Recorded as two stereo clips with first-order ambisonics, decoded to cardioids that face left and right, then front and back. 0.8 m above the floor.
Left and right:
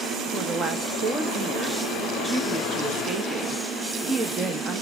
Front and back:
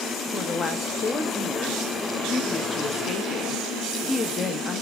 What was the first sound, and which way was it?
A woman speaking, 45° right.